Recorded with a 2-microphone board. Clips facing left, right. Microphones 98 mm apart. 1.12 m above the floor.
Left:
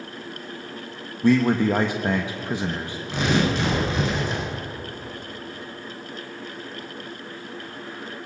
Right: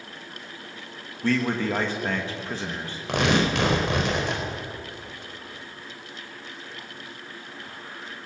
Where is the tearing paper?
80° right, 4.5 m.